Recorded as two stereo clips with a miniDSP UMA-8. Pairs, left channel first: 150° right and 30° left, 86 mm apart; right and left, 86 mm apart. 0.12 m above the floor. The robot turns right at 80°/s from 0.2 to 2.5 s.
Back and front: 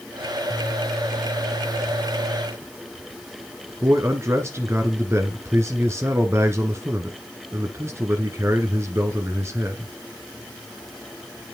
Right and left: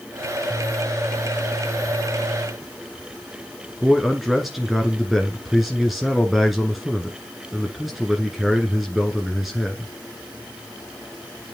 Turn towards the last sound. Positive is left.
turn(degrees=5)